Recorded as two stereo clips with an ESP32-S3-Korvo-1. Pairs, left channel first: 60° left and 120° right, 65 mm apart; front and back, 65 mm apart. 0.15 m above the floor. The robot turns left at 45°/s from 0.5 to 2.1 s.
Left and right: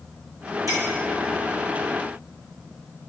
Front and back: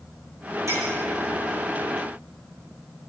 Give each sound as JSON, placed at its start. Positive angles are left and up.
{"t": 0.7, "sound": "a clink", "azimuth_deg": -140, "distance_m": 5.5}